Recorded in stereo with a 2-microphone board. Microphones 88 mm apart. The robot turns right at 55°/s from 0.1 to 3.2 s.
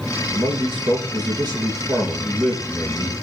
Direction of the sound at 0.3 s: 110° right.